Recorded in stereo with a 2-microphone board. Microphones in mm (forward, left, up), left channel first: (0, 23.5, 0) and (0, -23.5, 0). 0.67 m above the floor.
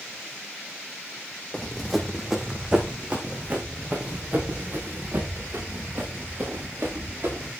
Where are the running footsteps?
15° left (ahead or behind), 1.9 m; by 7.5 s 45° right (ahead or behind), 7 m.